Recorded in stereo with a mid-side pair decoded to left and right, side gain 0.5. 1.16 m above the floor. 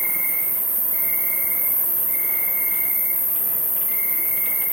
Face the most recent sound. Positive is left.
turn(degrees=-35)